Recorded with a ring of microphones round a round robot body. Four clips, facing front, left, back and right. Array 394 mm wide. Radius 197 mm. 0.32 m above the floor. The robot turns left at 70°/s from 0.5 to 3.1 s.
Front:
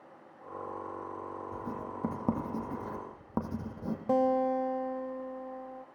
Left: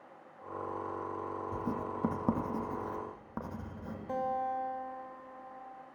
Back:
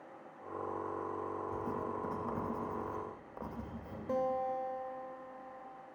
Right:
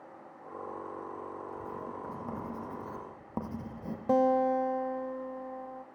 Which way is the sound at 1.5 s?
90° left.